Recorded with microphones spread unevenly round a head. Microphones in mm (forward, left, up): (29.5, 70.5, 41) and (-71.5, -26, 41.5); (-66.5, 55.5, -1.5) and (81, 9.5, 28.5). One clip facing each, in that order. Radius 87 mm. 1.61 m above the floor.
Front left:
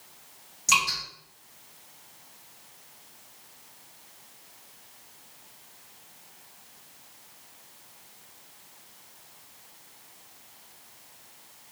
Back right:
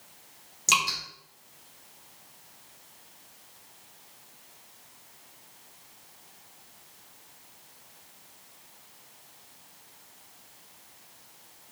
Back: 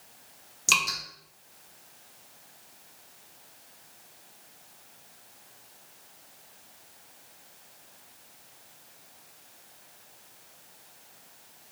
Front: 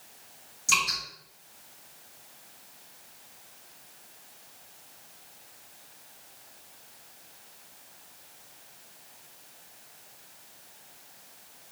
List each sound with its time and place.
0.7 s dripping: 175° left, 1.1 m